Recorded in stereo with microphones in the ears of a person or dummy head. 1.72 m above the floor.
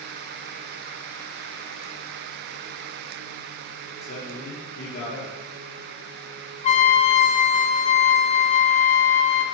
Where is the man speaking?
65° left (ahead or behind), 2.5 m.